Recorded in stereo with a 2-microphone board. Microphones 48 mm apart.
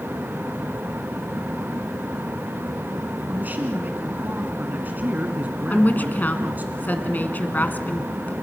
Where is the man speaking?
40° right (ahead or behind), 1.5 m.